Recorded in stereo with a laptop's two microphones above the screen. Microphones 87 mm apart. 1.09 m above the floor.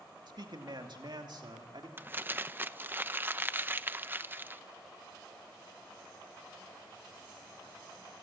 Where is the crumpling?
25° right (ahead or behind), 0.7 m.